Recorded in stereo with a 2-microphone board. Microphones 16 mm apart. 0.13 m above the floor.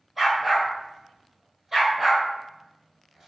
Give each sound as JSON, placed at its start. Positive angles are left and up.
{"t": 0.2, "sound": "a dog barking", "side_deg": -15, "distance_m": 1.5}